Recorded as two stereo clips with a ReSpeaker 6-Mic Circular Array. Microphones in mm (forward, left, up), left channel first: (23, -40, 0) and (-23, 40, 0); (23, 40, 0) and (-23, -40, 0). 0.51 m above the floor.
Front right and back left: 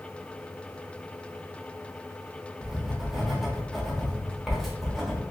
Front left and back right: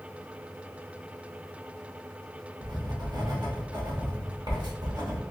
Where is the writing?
150° right, 0.9 m.